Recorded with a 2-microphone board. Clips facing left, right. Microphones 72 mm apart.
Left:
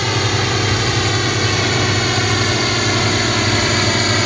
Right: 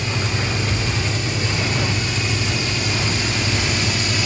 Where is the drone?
65° left (ahead or behind); by 4.3 s 55° left (ahead or behind).